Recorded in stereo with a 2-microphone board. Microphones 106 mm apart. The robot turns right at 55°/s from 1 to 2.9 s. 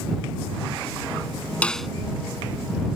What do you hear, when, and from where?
1.6 s a snare drum: 15° left (ahead or behind); by 1.9 s centre (ahead or behind)